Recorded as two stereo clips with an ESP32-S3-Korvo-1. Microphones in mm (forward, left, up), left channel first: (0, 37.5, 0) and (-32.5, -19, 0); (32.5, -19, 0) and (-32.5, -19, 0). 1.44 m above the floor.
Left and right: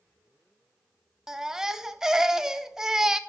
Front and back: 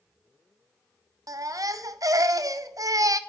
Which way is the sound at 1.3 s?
160° left.